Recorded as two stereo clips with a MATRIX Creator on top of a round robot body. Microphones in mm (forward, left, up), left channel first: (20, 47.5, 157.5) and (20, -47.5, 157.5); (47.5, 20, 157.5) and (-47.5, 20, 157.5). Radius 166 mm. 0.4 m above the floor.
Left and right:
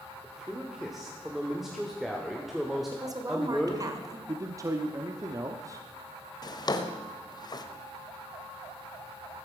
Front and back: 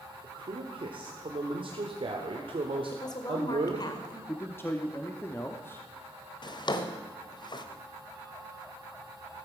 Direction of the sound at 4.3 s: 55° right.